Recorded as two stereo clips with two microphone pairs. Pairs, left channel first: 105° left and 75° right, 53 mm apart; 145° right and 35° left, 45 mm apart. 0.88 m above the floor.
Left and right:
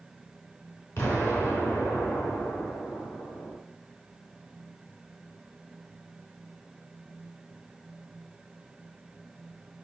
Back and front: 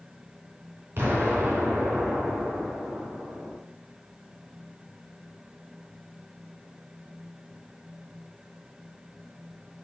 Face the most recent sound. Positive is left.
turn(degrees=75)